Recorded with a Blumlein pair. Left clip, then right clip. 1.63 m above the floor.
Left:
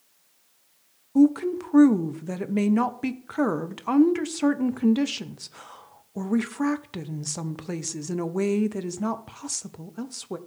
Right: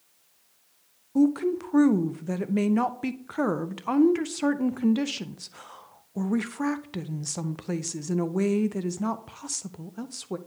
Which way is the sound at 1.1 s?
Straight ahead.